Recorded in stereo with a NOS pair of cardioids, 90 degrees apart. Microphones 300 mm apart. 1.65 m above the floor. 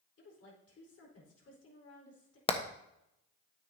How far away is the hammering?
About 1.1 m.